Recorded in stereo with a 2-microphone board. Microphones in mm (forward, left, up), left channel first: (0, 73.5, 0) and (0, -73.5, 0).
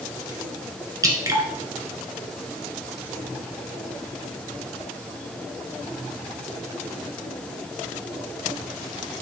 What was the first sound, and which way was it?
Dripping, 25° right (ahead or behind).